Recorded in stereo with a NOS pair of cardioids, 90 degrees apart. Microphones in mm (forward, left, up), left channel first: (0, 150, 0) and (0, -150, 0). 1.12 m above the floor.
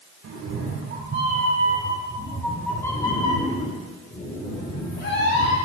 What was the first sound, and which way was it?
A cat meowing, 55° right.